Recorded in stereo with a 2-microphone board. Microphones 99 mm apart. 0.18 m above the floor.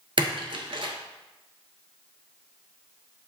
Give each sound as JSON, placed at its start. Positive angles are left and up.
{"t": 0.2, "sound": "a splash", "side_deg": -70, "distance_m": 0.6}